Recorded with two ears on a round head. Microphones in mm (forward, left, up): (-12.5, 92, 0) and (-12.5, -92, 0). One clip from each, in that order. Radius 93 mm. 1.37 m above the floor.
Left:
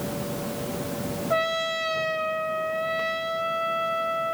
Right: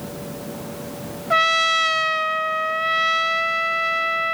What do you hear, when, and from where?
1.3 s a trumpet: 65° right (ahead or behind), 0.8 m